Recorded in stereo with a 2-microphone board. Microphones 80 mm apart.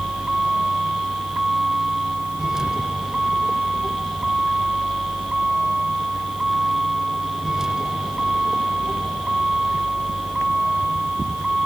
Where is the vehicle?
10° right (ahead or behind).